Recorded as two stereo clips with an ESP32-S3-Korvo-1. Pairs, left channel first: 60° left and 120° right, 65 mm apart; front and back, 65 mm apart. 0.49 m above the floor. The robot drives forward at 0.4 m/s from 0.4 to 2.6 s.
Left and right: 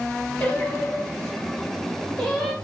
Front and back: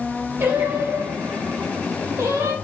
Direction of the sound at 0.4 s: 130° left.